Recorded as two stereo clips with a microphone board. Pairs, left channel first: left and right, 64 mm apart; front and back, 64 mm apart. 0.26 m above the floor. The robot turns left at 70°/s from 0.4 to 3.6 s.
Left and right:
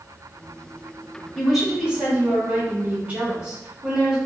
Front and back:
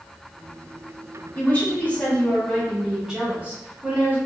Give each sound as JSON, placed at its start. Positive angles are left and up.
{"t": 1.4, "sound": "a woman speaking", "azimuth_deg": 0, "distance_m": 1.0}